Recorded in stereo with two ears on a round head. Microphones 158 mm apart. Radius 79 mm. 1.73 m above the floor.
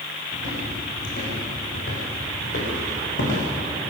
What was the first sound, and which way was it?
Footsteps, 45° left (ahead or behind).